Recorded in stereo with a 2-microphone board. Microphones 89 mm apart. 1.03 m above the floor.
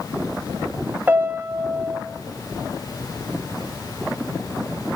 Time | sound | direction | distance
1.1 | a piano | 20° right (ahead or behind) | 1.5 m